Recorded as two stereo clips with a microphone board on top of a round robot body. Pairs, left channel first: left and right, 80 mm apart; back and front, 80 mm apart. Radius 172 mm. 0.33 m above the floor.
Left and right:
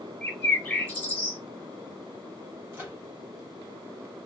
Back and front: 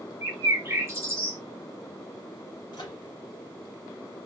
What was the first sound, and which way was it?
A bird, 40° left.